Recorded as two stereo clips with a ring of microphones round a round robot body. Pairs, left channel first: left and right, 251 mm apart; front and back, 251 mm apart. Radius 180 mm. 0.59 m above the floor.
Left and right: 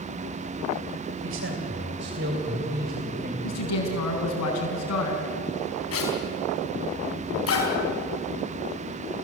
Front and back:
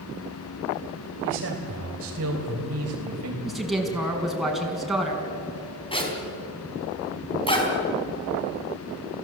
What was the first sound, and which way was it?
A man speaking, 135° right.